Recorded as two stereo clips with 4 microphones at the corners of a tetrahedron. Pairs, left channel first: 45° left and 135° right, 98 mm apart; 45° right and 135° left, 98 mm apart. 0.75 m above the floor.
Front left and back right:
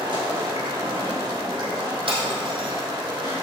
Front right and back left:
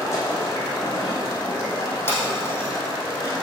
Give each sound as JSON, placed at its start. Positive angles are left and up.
{"t": 0.0, "sound": "running water", "azimuth_deg": -100, "distance_m": 3.0}
{"t": 2.1, "sound": "breaking glass", "azimuth_deg": -110, "distance_m": 3.0}